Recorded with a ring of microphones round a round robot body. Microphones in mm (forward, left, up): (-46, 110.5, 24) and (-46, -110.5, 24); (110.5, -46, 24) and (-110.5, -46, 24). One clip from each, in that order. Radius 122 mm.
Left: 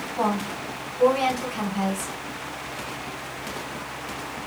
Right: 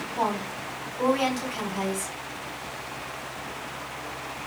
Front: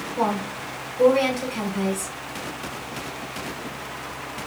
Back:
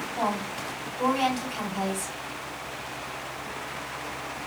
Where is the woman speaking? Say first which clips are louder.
Left 2 dB, front 4 dB; 120° right, 2.5 m.